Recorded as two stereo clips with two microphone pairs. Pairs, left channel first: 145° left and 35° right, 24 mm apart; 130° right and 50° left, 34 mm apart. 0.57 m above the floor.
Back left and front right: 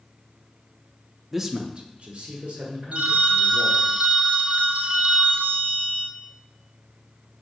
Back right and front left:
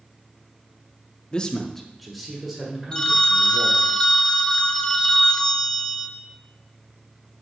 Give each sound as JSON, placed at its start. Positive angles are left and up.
{"t": 1.3, "sound": "a man speaking", "azimuth_deg": -115, "distance_m": 0.7}
{"t": 2.9, "sound": "a phone ringing", "azimuth_deg": -65, "distance_m": 0.8}